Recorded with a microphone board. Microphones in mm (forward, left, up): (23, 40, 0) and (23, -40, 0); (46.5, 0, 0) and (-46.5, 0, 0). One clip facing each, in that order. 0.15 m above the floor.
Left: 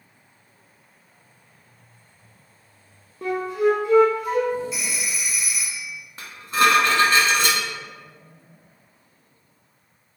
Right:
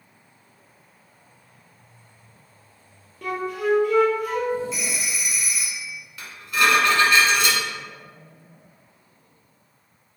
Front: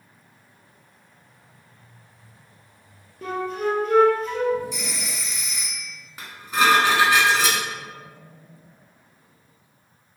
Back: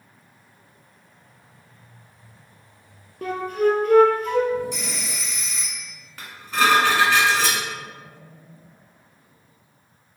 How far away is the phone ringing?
About 1.8 m.